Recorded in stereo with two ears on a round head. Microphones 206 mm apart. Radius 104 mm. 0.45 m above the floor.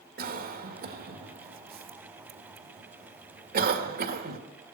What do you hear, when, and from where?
0.2 s a cough: 45° right (ahead or behind), 1.6 m